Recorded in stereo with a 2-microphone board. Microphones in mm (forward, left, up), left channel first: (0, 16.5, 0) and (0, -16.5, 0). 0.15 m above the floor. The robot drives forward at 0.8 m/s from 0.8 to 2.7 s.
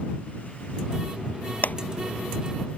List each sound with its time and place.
1.6 s a clap: 65° left (ahead or behind)